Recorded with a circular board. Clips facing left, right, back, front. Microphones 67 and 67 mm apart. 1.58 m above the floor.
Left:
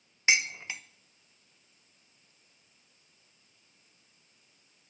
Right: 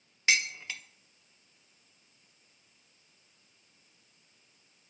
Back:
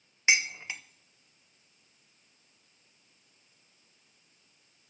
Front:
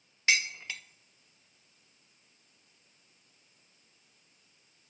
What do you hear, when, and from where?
0.3 s dishes clattering: 130° left, 0.6 m